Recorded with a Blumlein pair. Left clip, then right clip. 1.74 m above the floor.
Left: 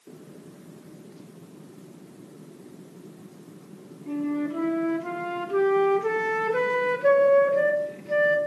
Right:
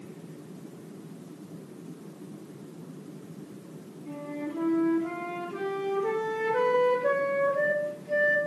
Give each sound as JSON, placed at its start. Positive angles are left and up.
{"t": 4.1, "sound": "a flute", "azimuth_deg": 20, "distance_m": 1.0}